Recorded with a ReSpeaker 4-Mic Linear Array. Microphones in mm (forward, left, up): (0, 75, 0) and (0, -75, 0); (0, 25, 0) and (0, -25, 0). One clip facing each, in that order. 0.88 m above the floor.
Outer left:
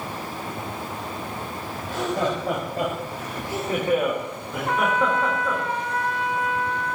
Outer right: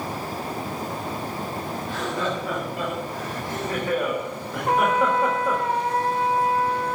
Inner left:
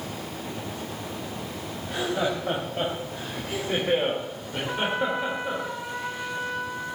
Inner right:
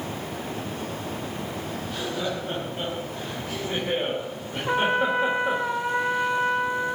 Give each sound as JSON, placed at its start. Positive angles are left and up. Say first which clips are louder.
{"t": 1.8, "sound": "laughter", "louder": "outer left 4 dB, inner left 5 dB", "side_deg": 50, "distance_m": 6.0}
{"t": 4.7, "sound": "a trumpet", "louder": "outer right 2 dB, inner right 5 dB", "side_deg": -35, "distance_m": 0.8}